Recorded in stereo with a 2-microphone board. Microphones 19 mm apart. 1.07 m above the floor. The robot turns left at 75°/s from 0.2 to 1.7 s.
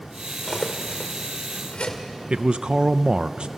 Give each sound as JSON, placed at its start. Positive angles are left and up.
{"t": 0.4, "sound": "cutlery clinking", "side_deg": 20, "distance_m": 2.5}
{"t": 2.3, "sound": "a man speaking", "side_deg": -50, "distance_m": 0.5}